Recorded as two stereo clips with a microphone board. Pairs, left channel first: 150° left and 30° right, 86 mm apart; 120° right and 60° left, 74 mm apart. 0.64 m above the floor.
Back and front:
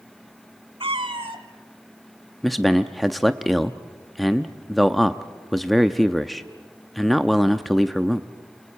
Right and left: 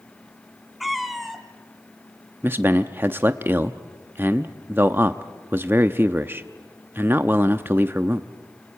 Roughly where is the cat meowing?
Ahead right.